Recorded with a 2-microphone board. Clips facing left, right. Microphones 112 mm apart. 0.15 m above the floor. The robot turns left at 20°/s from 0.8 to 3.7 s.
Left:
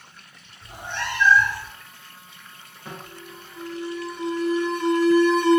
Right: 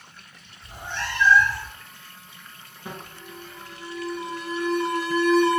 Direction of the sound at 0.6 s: 65° left (ahead or behind).